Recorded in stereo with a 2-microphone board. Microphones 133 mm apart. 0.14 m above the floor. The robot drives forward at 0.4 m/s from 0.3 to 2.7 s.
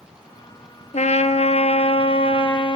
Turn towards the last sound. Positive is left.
turn(degrees=40)  # may be behind; listen again after turning